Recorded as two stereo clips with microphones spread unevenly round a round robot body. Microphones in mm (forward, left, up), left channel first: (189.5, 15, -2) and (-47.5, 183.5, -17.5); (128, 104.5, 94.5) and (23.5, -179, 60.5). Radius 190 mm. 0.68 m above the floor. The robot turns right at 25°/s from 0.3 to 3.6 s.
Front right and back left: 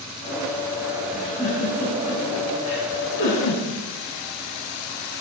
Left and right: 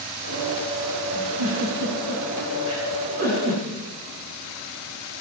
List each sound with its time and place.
1.1 s a giggle: 125° right, 5.5 m; by 3.6 s 65° right, 5.5 m